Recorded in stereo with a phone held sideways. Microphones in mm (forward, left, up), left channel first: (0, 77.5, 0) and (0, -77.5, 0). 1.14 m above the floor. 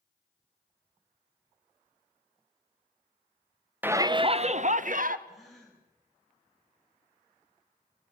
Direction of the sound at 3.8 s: 10° right (ahead or behind).